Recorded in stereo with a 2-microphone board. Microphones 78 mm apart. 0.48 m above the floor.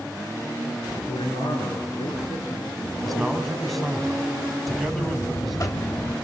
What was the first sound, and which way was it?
A man speaking, 80° left.